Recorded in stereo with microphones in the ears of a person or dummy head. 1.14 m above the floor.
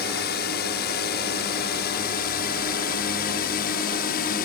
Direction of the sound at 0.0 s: 55° left (ahead or behind).